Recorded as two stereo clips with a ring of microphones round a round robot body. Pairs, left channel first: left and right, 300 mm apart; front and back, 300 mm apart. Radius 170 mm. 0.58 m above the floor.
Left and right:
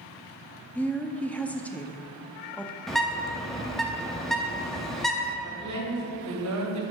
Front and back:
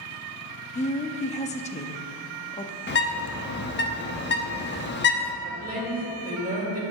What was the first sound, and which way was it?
A woman speaking, 10° left.